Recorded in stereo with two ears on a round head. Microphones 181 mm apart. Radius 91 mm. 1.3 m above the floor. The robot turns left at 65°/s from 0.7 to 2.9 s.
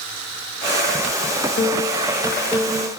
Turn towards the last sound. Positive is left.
turn(degrees=0)